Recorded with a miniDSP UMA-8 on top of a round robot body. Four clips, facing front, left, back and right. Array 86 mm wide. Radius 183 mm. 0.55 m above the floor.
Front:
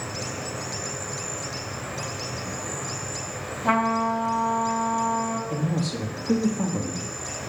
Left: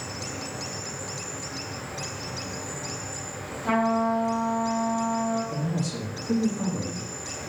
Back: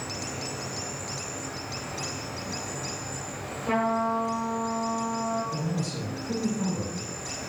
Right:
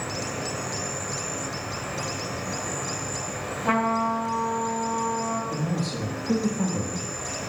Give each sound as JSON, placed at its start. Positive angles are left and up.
{"t": 0.0, "sound": "an insect", "azimuth_deg": -65, "distance_m": 1.4}
{"t": 3.6, "sound": "a trumpet", "azimuth_deg": -25, "distance_m": 3.5}
{"t": 5.5, "sound": "a man speaking", "azimuth_deg": -20, "distance_m": 1.4}